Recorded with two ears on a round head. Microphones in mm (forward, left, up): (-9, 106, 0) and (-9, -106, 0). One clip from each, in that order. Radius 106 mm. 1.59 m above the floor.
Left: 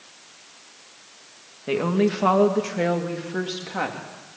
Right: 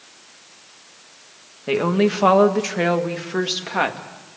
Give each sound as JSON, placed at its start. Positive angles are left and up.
{"t": 1.7, "sound": "a woman speaking", "side_deg": -20, "distance_m": 1.9}